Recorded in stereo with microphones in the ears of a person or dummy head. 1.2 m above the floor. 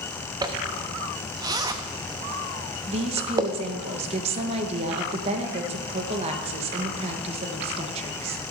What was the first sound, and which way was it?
A zipper, 15° right (ahead or behind).